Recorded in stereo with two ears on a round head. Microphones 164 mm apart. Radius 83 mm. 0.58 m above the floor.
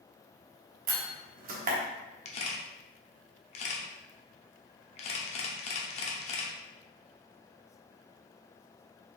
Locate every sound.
0.9 s a door slam: 50° right (ahead or behind), 1.0 m
2.2 s a camera shutter: 35° left (ahead or behind), 0.8 m